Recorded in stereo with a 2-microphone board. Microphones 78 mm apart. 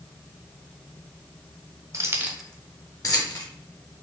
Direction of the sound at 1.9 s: 40° right (ahead or behind).